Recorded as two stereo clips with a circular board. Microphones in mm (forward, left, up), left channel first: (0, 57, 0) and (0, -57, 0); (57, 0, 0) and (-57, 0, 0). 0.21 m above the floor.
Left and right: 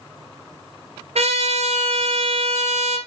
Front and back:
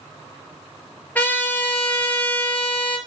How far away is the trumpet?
About 2 m.